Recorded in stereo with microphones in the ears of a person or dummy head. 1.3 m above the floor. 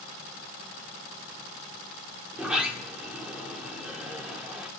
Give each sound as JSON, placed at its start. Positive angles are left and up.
{"t": 2.3, "sound": "a sliding door", "side_deg": -5, "distance_m": 1.4}